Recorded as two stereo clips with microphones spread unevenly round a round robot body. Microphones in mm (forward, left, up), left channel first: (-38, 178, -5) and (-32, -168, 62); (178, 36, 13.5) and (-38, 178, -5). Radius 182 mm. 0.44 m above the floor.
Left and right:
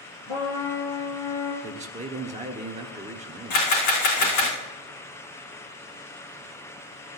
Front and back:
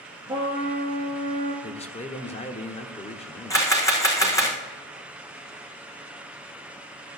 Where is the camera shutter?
45° left, 4.5 m.